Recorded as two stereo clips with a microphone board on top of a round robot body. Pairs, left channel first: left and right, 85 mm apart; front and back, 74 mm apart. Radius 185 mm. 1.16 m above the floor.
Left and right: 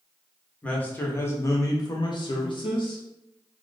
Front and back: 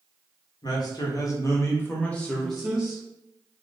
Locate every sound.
0.6 s a man speaking: 15° left, 1.1 m; by 3.0 s 105° left, 1.0 m